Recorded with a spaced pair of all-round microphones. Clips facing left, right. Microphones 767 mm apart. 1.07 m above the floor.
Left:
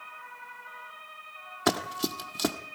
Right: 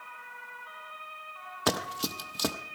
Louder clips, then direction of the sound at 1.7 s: Left 3 dB; 10° right (ahead or behind).